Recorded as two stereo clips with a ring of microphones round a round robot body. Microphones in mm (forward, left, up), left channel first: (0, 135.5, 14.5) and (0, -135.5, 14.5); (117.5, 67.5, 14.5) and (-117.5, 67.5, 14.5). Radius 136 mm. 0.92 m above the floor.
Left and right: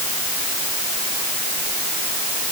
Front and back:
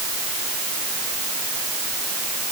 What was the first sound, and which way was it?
Only background noise.